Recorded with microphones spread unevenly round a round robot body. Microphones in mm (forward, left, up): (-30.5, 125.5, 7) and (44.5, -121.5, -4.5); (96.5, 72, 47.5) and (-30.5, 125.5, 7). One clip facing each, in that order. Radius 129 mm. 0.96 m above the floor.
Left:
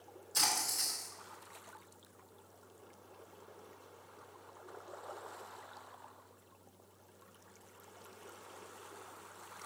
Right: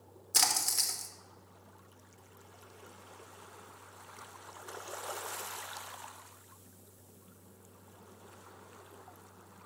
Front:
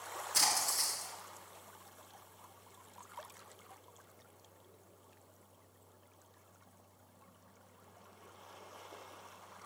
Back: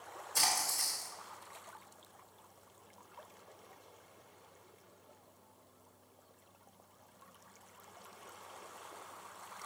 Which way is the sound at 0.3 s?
70° right.